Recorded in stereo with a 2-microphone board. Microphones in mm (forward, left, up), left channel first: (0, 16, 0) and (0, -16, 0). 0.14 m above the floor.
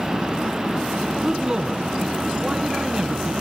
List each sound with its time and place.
1.2 s a man speaking: 30° right (ahead or behind), 1.3 m